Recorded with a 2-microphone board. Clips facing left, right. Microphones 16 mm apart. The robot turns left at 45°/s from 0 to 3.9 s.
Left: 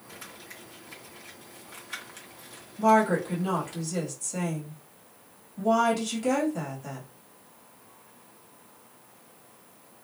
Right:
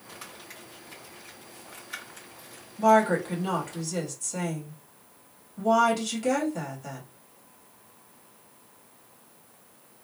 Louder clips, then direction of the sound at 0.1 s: Right 1 dB; 45° right (ahead or behind).